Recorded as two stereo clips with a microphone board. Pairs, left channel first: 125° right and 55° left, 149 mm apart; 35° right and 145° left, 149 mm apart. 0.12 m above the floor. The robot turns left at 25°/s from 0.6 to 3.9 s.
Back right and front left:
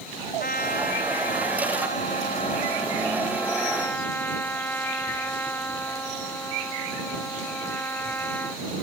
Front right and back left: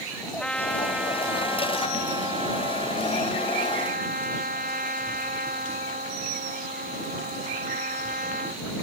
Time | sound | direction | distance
0.4 | a trumpet | 120° right | ?